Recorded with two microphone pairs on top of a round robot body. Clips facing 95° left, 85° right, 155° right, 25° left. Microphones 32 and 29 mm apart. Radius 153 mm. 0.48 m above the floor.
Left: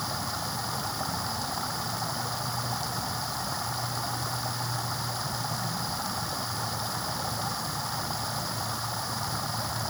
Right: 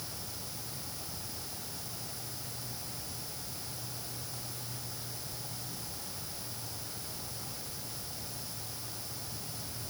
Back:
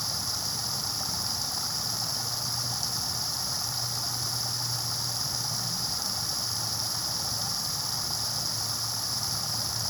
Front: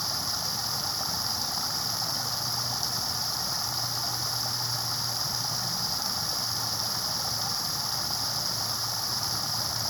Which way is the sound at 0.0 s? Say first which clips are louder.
Left 13 dB, front 1 dB; 105° left.